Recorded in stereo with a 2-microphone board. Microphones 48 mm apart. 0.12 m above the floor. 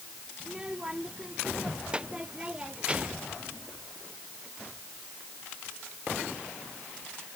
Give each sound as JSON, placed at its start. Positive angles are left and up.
{"t": 0.4, "sound": "a child speaking", "side_deg": -15}